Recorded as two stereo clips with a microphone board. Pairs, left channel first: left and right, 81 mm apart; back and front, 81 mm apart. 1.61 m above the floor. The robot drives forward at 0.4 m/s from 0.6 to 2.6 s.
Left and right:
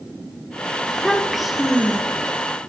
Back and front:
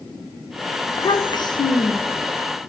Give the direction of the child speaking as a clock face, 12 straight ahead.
6 o'clock.